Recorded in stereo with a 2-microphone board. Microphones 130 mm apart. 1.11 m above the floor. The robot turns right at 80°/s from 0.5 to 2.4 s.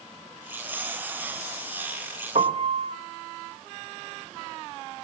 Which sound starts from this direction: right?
A piano, at 2.4 s.